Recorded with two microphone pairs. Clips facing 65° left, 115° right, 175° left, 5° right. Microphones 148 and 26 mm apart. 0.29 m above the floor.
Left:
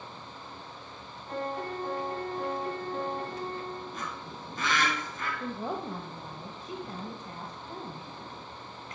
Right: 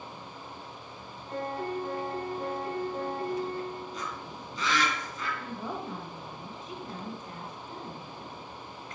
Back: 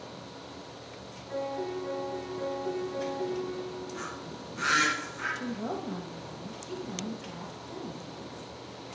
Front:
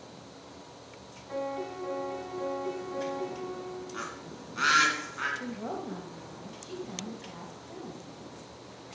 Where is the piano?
40° left, 3 m.